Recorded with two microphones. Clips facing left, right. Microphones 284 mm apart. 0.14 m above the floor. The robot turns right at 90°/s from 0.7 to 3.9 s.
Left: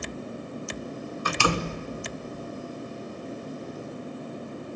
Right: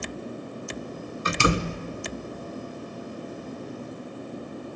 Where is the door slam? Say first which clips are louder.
Right 3 dB; 25° right (ahead or behind), 0.9 m; by 1.8 s 15° right (ahead or behind), 0.9 m.